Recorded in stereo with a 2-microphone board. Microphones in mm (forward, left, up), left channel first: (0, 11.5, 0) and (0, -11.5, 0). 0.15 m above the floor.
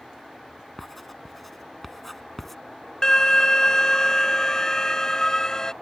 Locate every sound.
0.8 s writing: 5° left (ahead or behind)
3.0 s an alarm: 25° left (ahead or behind)